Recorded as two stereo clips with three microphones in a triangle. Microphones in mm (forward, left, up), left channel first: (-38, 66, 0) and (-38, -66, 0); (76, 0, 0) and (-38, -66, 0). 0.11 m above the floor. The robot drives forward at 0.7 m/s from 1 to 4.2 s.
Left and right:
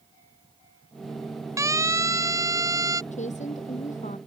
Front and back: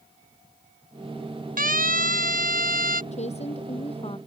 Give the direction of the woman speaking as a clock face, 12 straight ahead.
10 o'clock.